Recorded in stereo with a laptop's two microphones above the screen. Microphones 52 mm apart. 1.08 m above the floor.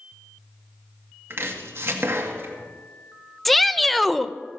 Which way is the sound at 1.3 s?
50° right (ahead or behind).